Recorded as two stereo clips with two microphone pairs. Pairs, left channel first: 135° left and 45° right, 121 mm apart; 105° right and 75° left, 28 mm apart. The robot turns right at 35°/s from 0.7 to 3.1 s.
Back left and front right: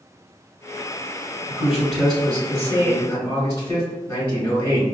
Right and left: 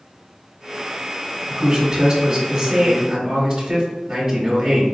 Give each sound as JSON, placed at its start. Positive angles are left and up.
{"t": 1.5, "sound": "a man speaking", "azimuth_deg": 20, "distance_m": 1.5}